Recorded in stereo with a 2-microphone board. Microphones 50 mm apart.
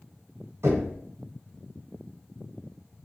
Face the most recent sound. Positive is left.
turn(degrees=-65)  # may be behind; listen again after turning